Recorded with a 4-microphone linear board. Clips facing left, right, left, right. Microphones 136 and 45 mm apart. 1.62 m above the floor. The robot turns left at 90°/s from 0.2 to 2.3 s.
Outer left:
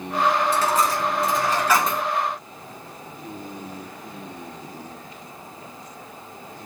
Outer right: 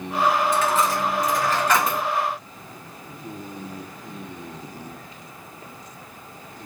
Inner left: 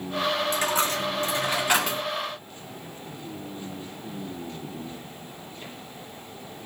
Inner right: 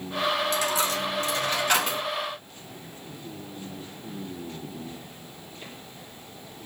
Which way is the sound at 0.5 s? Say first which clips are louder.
Even, inner left 1 dB; 115° left.